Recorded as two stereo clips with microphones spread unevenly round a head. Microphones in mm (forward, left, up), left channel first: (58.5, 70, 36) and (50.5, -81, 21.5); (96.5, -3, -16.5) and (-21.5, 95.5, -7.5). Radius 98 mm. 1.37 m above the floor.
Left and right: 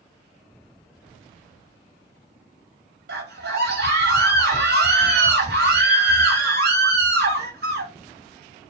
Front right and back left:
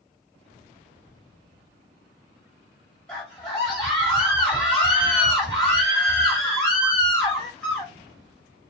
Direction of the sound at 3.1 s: 125° right.